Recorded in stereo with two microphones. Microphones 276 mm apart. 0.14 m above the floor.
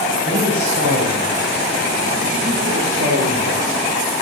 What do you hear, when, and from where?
0.2 s a man speaking: 40° right (ahead or behind), 7 m; by 3.9 s 50° right (ahead or behind), 1.7 m